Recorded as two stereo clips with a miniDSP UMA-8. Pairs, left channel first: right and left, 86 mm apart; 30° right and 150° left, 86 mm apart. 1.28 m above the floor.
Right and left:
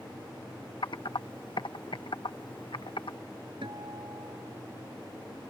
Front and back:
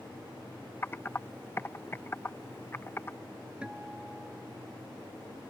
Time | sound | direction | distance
0.8 | typing on a keyboard | 90° right | ?
3.6 | a guitar | 75° left | ?